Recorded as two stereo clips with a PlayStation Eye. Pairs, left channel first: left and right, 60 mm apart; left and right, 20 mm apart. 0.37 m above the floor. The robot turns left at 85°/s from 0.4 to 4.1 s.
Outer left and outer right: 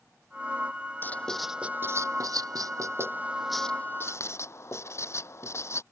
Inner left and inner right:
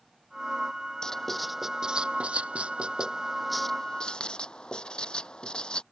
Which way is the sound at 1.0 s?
35° left (ahead or behind).